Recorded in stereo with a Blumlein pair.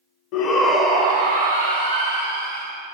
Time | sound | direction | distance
0.3 | a shout | 40° left | 0.7 m